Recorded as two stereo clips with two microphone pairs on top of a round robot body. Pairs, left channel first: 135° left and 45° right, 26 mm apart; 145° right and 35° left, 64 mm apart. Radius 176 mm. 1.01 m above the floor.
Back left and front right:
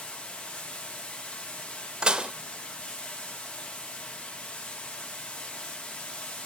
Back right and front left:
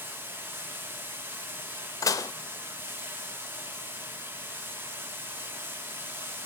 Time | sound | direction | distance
0.0 | running water | 95° left | 2 m
2.0 | dishes clattering | 105° right | 0.6 m